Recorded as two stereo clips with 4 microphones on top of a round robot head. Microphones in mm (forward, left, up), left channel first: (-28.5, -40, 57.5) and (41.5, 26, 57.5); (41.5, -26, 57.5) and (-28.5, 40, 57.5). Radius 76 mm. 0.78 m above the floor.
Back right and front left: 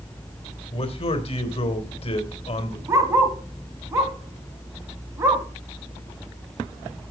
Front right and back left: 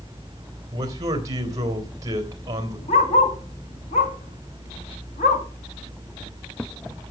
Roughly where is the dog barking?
Ahead.